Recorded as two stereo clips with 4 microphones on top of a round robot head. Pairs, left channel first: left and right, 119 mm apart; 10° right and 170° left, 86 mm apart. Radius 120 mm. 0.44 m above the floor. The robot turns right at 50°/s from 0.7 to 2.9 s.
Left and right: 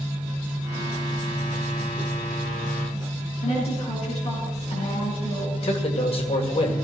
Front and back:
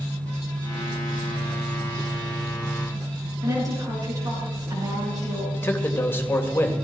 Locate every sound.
3.4 s a woman speaking: 125° left, 5 m
5.5 s a man speaking: 55° left, 2.5 m